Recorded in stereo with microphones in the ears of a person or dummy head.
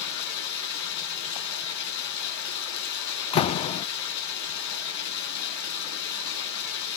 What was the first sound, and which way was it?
Running water, 65° left (ahead or behind).